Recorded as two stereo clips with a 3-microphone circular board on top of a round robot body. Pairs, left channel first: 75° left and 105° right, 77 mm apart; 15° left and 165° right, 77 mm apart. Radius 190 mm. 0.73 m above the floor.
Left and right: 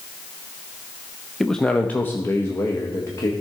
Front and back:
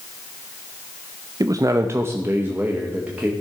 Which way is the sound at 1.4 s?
165° left.